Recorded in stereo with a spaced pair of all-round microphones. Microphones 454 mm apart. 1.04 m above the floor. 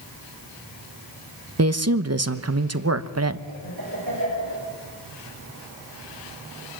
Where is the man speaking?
35° right (ahead or behind), 1.1 m.